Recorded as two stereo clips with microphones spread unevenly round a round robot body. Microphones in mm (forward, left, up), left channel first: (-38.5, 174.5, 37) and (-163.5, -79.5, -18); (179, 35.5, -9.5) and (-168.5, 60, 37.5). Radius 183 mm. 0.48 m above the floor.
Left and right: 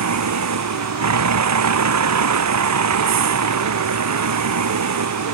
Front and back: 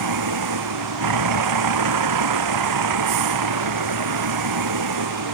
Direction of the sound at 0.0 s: 140° right.